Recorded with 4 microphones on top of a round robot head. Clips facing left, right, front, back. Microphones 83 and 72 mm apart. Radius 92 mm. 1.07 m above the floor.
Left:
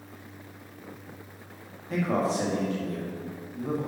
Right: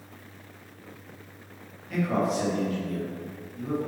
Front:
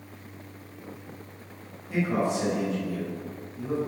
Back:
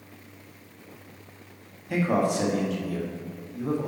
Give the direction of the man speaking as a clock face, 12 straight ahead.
7 o'clock.